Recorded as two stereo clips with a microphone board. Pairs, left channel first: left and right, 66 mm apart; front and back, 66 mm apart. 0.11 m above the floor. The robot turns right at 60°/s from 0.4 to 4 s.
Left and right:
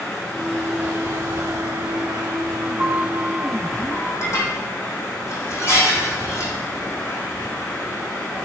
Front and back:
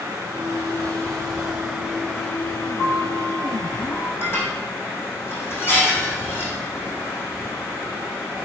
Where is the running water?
170° left, 4 m; by 8.4 s 25° left, 4 m.